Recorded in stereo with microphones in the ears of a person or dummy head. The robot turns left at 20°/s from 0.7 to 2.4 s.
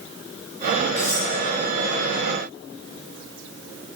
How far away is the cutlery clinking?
About 5 m.